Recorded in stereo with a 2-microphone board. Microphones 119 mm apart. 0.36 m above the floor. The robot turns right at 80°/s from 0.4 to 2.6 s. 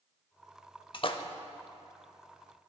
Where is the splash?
45° left (ahead or behind), 0.6 m.